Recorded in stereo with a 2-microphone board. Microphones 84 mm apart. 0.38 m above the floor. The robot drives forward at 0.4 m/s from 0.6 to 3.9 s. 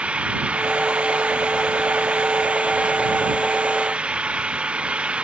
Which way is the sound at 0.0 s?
15° right (ahead or behind).